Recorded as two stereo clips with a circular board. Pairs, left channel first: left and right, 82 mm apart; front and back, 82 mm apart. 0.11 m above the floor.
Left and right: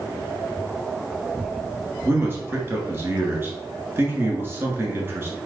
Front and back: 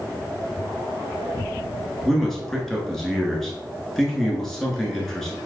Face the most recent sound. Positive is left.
turn(degrees=-85)